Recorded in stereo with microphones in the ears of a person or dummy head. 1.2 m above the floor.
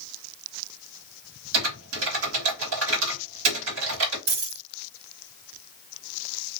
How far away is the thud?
No thud in this recording.